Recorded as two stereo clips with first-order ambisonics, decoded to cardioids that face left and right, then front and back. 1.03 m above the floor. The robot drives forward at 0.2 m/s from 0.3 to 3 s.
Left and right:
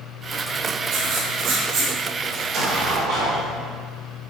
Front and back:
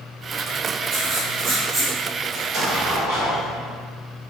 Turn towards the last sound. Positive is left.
turn(degrees=-135)